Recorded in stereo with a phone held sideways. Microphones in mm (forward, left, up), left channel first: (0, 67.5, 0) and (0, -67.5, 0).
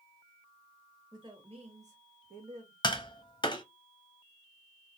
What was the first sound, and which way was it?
A woman speaking, 30° right (ahead or behind).